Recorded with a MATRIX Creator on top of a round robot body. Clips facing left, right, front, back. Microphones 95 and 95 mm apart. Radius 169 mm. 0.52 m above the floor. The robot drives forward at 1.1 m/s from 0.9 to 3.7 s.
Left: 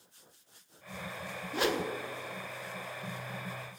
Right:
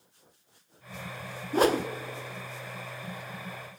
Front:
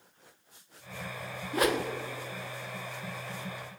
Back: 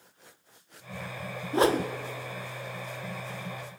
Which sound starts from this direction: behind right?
A whoosh, at 1.5 s.